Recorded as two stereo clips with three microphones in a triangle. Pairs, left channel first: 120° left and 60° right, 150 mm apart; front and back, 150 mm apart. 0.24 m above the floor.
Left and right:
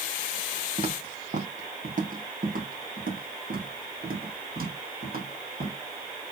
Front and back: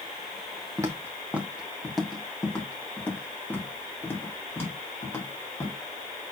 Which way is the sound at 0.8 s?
110° right.